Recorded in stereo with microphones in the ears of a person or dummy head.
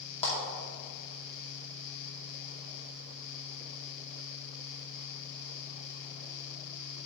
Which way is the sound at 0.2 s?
30° left (ahead or behind).